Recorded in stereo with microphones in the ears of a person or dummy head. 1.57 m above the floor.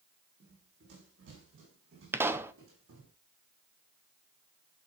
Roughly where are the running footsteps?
Right.